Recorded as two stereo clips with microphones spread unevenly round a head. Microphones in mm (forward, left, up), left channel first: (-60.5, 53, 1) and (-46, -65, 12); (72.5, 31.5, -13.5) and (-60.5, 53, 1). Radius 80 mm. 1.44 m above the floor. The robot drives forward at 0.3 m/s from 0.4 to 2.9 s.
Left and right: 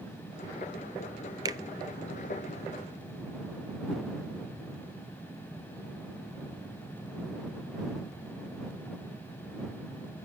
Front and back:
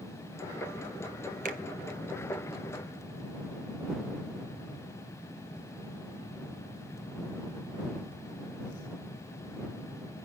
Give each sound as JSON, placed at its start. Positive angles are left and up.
{"t": 1.4, "sound": "a finger snap", "azimuth_deg": -145, "distance_m": 0.6}